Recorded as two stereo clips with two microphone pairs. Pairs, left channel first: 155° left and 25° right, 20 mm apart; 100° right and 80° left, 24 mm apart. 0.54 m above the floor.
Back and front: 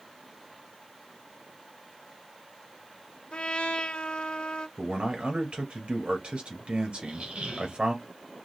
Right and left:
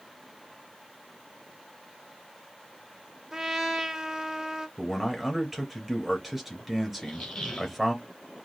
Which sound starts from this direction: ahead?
A man speaking, at 4.8 s.